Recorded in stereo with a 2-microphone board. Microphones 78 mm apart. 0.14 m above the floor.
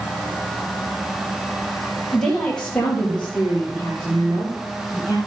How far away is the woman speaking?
About 3 m.